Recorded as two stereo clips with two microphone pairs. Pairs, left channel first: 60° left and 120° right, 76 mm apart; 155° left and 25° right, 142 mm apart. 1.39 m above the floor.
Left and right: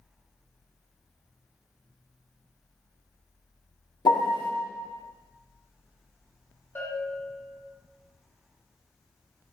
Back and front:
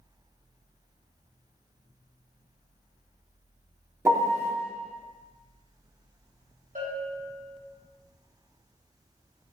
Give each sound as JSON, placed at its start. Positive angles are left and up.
{"t": 4.0, "sound": "a piano", "azimuth_deg": 50, "distance_m": 0.8}
{"t": 6.8, "sound": "a bell", "azimuth_deg": 0, "distance_m": 2.5}